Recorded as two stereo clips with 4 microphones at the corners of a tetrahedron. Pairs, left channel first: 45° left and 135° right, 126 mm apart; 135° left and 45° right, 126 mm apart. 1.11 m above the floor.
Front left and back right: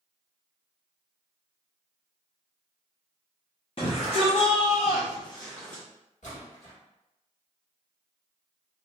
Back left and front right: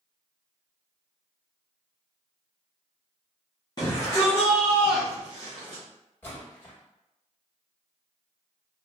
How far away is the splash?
About 1.3 m.